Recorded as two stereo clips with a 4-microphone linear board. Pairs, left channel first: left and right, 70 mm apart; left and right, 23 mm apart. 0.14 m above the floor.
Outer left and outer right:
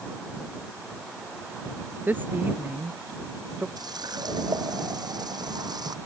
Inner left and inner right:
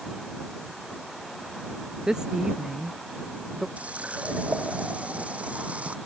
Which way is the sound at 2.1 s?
25° right (ahead or behind).